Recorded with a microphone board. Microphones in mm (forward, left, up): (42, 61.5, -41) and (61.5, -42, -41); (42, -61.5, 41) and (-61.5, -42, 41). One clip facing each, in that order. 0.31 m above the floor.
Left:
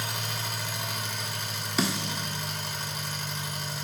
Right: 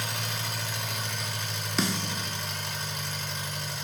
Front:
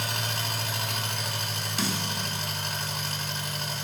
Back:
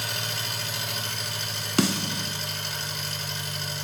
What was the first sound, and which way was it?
An engine running, 15° left.